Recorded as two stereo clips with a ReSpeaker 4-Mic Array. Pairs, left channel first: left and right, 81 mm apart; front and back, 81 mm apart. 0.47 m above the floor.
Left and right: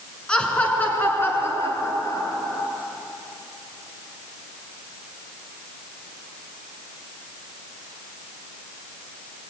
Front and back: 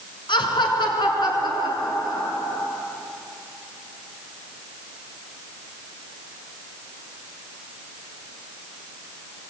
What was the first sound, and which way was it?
Laughter, 10° left.